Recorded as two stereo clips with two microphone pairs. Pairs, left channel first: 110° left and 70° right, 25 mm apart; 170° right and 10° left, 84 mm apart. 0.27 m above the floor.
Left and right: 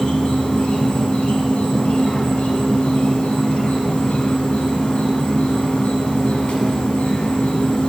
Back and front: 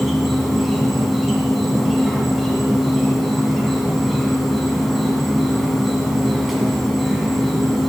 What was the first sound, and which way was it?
An insect, 95° left.